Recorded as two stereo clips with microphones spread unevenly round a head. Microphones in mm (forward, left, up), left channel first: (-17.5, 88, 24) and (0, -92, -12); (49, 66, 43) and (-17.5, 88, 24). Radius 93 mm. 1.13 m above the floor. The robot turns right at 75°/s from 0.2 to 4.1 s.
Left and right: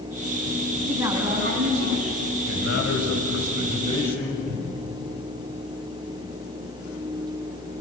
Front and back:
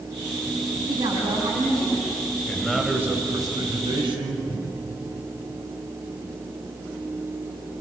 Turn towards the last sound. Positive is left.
turn(degrees=-75)